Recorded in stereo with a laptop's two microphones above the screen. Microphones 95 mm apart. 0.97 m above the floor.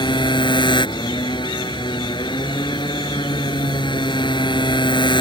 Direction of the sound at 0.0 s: 55° left (ahead or behind).